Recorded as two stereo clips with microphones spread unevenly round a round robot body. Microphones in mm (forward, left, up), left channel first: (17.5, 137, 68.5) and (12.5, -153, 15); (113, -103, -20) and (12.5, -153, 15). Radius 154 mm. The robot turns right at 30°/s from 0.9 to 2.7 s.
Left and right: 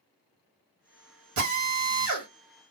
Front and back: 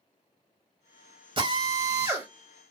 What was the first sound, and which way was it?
A drill, 100° right.